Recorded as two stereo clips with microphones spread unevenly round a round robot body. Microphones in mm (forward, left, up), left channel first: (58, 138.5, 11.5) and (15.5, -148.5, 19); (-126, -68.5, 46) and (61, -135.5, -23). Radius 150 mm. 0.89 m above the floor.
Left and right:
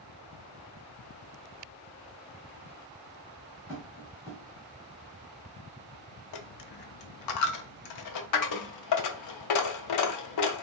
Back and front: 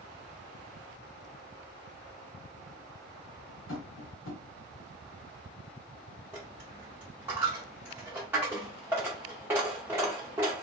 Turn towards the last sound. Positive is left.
turn(degrees=75)